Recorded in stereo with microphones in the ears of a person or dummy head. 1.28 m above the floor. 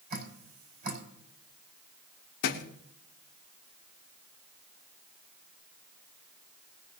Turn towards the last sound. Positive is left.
turn(degrees=60)  # may be behind; listen again after turning